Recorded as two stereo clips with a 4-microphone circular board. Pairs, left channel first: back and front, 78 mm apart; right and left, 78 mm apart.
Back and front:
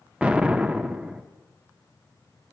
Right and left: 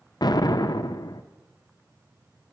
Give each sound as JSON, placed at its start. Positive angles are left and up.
{"t": 0.2, "sound": "an explosion", "azimuth_deg": -75, "distance_m": 0.5}